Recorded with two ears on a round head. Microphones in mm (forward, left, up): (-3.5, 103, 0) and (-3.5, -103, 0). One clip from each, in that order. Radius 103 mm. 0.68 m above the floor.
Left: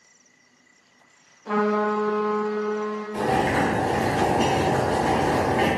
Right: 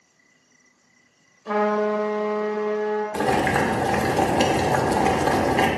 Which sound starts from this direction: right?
Boiling, at 3.1 s.